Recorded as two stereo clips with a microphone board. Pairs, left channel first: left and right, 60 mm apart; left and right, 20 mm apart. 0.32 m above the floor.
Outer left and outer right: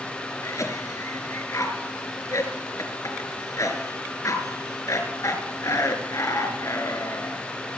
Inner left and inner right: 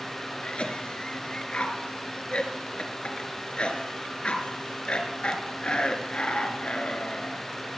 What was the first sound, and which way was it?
A cough, 55° left (ahead or behind).